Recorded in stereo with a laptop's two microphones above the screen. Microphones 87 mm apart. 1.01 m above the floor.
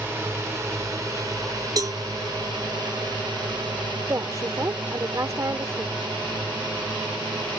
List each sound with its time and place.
0.0 s a drone: 30° right (ahead or behind); by 7.6 s 80° right
1.8 s a cowbell: 45° right (ahead or behind)
4.1 s a woman speaking: 35° right (ahead or behind)